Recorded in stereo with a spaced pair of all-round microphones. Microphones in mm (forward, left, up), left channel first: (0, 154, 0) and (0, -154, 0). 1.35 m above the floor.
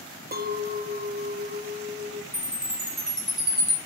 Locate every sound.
0.3 s a clink: 30° right (ahead or behind), 0.5 m
2.3 s a chime: centre (ahead or behind), 2.5 m